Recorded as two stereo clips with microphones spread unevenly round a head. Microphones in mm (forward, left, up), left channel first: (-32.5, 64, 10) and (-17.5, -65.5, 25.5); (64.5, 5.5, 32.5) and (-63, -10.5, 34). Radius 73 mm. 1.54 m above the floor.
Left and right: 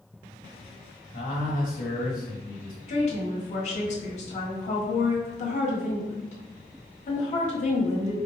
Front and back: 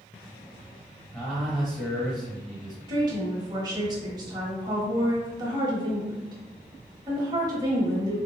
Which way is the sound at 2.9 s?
130° left.